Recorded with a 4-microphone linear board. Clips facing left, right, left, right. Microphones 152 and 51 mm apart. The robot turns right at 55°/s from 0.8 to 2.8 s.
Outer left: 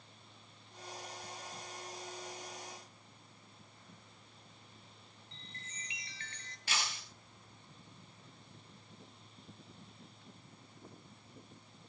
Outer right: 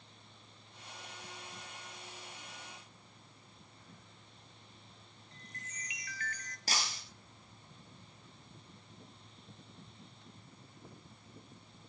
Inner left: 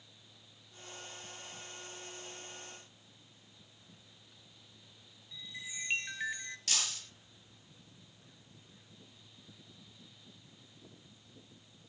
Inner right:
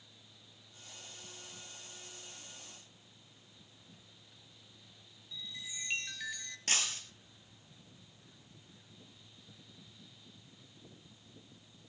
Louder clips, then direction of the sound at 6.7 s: Outer right 1 dB, inner right 3 dB; 35° right (ahead or behind).